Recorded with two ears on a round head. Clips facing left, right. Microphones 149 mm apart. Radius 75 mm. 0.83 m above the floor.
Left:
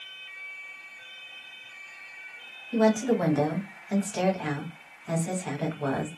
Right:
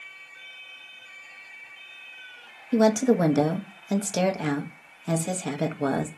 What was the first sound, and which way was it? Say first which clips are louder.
A woman speaking: right 3 dB; 50° right (ahead or behind).